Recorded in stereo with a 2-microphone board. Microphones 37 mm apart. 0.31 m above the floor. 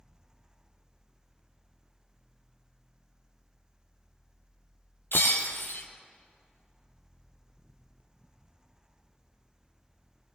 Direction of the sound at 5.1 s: 80° left.